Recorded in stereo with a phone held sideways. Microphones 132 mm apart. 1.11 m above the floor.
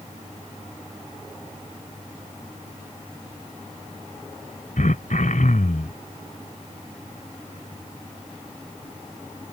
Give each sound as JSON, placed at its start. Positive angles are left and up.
{"t": 4.8, "sound": "throat clearing", "side_deg": 80}